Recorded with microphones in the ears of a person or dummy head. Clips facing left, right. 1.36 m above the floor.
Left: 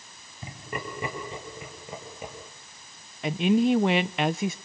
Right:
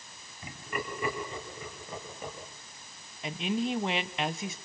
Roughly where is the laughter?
Left.